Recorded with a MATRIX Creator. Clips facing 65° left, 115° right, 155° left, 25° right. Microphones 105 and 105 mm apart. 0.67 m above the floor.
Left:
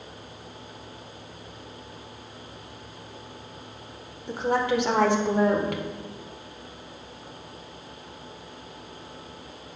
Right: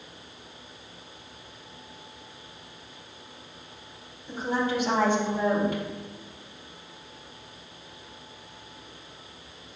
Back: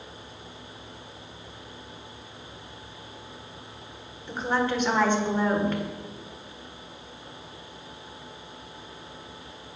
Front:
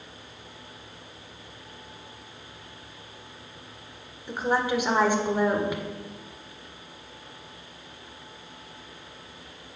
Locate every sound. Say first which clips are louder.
4.3 s a woman speaking: left 3 dB, front 1 dB; 55° left, 1.7 m